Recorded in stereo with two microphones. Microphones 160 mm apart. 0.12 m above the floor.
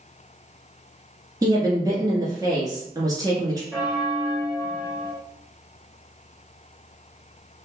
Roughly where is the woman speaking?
Right.